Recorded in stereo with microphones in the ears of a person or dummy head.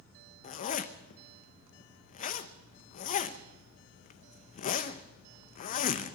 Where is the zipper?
45° left (ahead or behind), 0.7 m.